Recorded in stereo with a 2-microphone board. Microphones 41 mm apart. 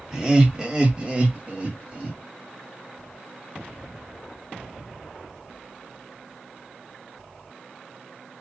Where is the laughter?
15° right (ahead or behind), 1.5 m; by 2.2 s 25° right (ahead or behind), 1.5 m.